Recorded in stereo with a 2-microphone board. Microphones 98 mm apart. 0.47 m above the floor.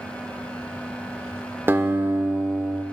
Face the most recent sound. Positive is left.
turn(degrees=-20)  # may be behind; listen again after turning